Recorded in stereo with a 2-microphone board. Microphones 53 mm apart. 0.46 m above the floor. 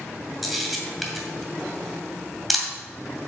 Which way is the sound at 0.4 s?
Centre (ahead or behind).